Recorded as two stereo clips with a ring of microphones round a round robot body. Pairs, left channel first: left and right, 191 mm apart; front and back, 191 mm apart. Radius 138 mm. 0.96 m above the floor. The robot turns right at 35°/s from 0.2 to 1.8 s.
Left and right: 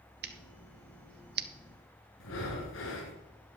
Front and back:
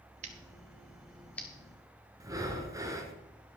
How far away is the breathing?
About 2 m.